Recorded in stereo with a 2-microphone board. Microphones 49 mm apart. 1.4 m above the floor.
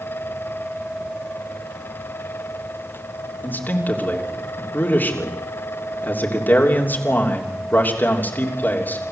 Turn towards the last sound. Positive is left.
turn(degrees=40)  # may be behind; listen again after turning